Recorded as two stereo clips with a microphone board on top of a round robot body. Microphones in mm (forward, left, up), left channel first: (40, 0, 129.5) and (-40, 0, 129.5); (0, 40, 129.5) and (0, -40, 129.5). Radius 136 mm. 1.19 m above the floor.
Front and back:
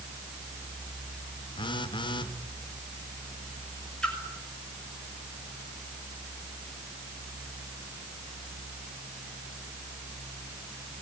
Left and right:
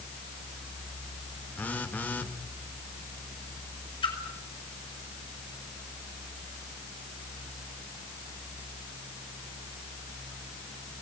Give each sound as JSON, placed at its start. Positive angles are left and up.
{"t": 1.6, "sound": "a phone buzzing", "azimuth_deg": 20, "distance_m": 1.6}
{"t": 4.0, "sound": "a splash", "azimuth_deg": 80, "distance_m": 5.5}